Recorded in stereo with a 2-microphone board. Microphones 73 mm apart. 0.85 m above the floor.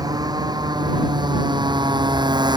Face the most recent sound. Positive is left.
turn(degrees=-75)  # may be behind; listen again after turning